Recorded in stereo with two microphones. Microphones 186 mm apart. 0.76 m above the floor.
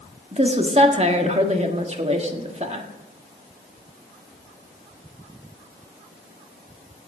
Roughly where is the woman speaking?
Right.